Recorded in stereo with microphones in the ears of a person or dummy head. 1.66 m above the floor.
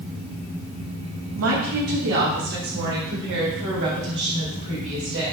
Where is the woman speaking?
85° right, 2 m; by 5.3 s 70° right (ahead or behind), 5.5 m.